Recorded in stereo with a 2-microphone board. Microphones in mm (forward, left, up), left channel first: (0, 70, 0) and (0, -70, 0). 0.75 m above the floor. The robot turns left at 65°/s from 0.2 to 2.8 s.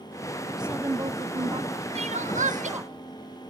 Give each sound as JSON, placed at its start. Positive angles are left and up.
{"t": 0.6, "sound": "a woman speaking", "side_deg": -5, "distance_m": 0.6}
{"t": 1.9, "sound": "crying", "azimuth_deg": -55, "distance_m": 0.6}